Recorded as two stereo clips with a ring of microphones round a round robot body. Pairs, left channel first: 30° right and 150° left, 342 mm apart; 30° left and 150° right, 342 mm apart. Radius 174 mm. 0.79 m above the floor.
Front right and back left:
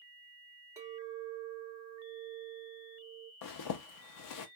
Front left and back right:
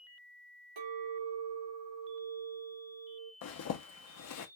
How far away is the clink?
About 2.5 m.